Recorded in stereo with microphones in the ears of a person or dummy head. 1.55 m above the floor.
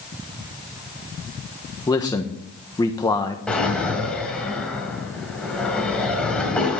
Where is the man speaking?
15° left (ahead or behind), 1.3 m.